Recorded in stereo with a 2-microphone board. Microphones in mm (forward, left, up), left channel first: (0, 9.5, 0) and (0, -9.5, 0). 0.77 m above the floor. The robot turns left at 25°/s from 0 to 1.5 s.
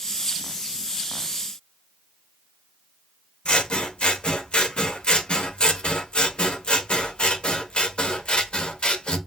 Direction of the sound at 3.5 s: 55° left (ahead or behind).